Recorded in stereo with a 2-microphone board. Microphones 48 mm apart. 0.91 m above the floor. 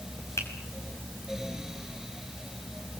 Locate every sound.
0.4 s a finger snap: 80° left, 4.5 m